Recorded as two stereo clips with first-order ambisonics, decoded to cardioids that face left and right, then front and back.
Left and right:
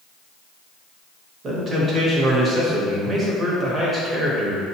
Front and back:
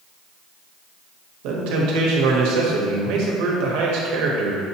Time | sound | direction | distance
1.4 | a man speaking | 160° right | 1.0 m